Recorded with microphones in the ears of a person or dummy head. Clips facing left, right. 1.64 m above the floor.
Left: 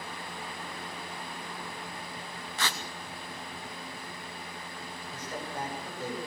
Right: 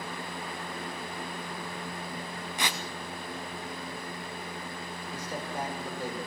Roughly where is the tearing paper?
Centre.